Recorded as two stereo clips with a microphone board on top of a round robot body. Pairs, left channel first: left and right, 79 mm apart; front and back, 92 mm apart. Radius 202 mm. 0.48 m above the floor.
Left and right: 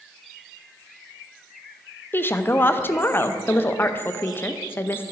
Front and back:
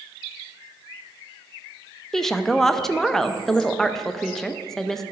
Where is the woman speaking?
80° left, 0.7 m.